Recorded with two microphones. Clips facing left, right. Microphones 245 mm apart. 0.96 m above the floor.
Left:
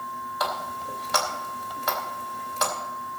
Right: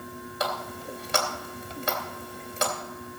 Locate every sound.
0.4 s a running tap: 30° right (ahead or behind), 2.5 m